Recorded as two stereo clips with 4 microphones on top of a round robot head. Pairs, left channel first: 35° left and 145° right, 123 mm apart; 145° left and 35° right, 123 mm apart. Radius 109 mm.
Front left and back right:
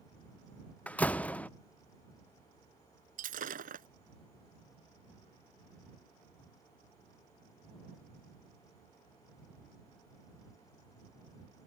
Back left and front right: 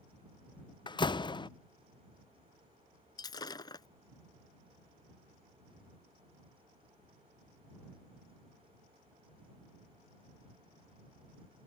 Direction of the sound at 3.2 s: 155° right.